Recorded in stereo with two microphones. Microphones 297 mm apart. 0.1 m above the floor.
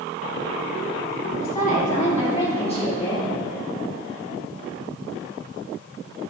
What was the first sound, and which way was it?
A woman speaking, 30° left (ahead or behind).